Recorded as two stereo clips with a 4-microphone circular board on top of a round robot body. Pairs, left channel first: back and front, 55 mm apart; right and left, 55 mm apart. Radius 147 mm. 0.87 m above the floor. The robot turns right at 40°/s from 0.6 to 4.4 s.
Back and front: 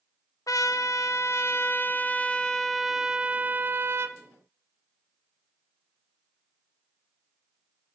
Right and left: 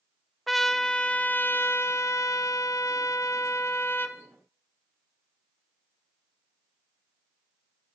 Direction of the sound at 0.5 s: Straight behind.